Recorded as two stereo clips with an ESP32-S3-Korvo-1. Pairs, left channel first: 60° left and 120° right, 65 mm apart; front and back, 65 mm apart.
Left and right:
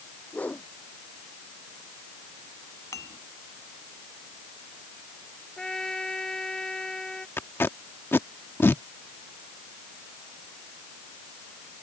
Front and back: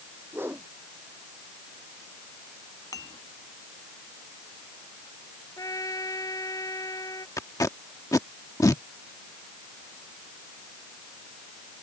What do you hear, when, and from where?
0.3 s a whoosh: 130° left
2.9 s dishes clattering: 25° left
5.6 s a trumpet: 20° right
7.4 s tape being pulled: 10° left